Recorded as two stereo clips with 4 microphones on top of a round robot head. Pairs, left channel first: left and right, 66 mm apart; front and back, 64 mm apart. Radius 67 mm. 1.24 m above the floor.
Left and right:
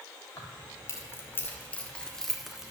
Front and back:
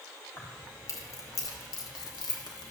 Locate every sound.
0.4 s keys jangling: 50° left, 1.9 m; by 2.7 s 10° right, 1.4 m